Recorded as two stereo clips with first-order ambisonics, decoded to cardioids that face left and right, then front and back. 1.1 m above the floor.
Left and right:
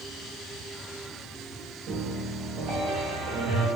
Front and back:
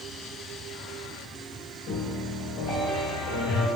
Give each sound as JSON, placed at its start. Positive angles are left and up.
{"t": 1.9, "sound": "a piano", "azimuth_deg": -45, "distance_m": 1.1}